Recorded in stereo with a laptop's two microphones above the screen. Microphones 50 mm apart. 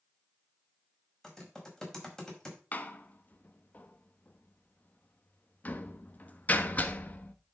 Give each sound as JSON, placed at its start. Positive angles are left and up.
{"t": 1.2, "sound": "typing on a keyboard", "side_deg": 10, "distance_m": 5.0}
{"t": 2.7, "sound": "a door slam", "side_deg": 30, "distance_m": 1.1}